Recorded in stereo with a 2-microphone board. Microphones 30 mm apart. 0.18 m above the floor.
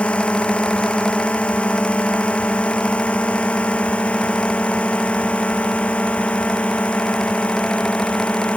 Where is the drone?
45° left (ahead or behind).